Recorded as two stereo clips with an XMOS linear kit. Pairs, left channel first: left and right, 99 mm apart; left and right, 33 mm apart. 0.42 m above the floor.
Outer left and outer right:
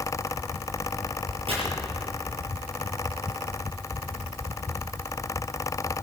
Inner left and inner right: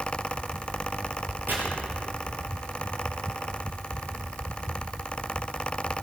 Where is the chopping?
70° right (ahead or behind), 4.5 m.